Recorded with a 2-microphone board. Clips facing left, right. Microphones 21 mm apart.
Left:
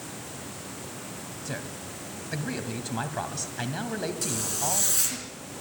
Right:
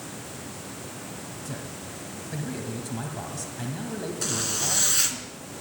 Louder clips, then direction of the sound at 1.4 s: Left 3 dB; 35° left (ahead or behind).